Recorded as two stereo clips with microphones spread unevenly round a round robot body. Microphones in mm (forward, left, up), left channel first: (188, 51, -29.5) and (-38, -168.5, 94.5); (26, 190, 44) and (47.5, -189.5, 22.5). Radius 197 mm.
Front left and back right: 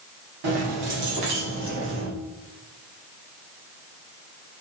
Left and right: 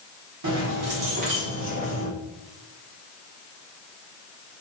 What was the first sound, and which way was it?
Keys jangling, 135° right.